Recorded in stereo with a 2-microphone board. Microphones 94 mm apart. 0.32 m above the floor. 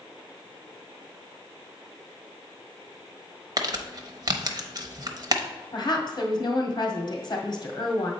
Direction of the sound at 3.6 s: 40° right (ahead or behind).